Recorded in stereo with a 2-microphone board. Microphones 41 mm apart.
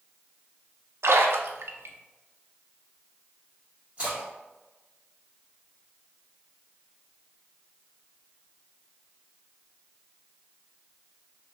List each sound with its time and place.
1.0 s a splash: 80° right, 0.5 m
4.0 s a splash: 30° right (ahead or behind), 2.0 m